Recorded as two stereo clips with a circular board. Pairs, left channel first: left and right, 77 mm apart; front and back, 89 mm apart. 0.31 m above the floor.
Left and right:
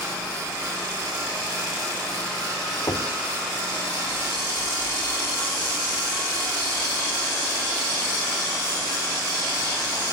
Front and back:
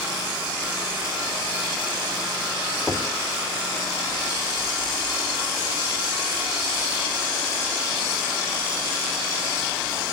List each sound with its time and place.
2.9 s knocking: 100° left, 1.8 m